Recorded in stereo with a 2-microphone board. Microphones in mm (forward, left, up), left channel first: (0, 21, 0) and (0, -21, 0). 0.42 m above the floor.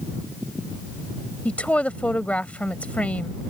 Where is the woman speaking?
30° left (ahead or behind).